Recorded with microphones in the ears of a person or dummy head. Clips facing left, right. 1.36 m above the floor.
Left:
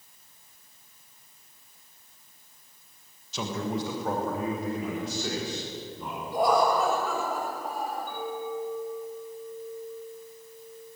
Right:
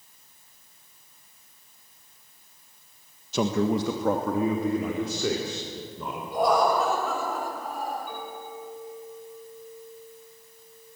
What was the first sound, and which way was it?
A man speaking, 45° right (ahead or behind).